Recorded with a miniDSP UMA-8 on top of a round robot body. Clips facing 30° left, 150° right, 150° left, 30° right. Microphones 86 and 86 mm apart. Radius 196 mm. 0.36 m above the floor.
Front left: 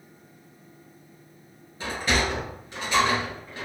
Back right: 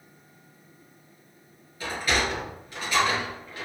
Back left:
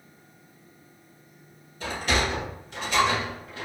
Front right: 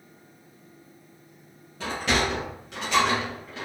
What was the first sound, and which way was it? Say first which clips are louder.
A sliding door: front left 1 dB, front right 1 dB; 35° right.